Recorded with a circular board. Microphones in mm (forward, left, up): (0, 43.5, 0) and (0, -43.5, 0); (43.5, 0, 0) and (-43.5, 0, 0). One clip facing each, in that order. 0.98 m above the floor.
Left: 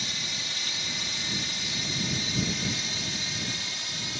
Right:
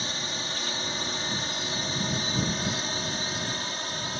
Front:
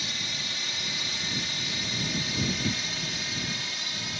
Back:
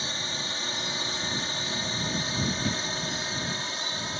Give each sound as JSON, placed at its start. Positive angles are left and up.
{"t": 0.0, "sound": "a drone", "azimuth_deg": -130}